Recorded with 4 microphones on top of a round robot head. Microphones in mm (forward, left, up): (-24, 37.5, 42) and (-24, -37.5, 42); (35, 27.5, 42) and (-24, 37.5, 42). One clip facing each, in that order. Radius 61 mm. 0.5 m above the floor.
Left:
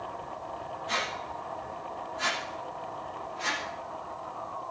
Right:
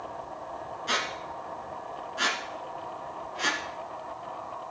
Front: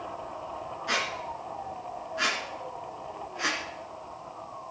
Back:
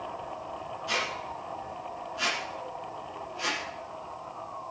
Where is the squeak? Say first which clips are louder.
Right 2 dB, front 1 dB; 70° right, 2.5 m.